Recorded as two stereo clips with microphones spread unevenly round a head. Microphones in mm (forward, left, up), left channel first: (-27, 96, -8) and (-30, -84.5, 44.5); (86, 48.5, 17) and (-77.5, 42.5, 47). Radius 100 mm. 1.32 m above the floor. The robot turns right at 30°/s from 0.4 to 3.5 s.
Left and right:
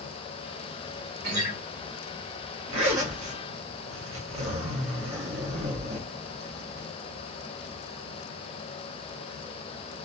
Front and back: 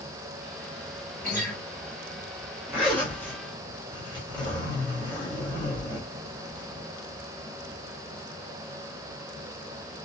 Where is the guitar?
80° right, 1.5 m; by 1.6 s 70° right, 1.5 m.